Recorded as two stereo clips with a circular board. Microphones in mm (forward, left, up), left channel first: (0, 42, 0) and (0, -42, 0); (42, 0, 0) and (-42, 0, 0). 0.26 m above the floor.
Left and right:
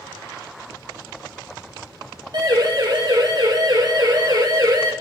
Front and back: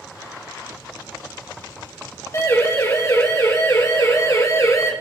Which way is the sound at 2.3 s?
55° right.